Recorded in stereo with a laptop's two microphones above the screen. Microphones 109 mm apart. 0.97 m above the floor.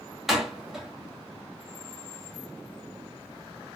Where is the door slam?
5° right (ahead or behind), 1.3 m.